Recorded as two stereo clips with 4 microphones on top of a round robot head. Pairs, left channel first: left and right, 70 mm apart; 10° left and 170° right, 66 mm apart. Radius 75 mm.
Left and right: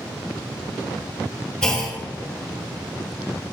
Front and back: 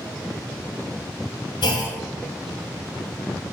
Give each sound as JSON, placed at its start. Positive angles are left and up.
{"t": 1.6, "sound": "a clunk", "azimuth_deg": 10, "distance_m": 2.0}